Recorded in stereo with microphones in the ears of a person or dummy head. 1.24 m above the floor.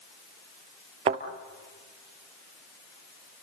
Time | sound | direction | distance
1.1 | a thud | 35° right (ahead or behind) | 1.6 m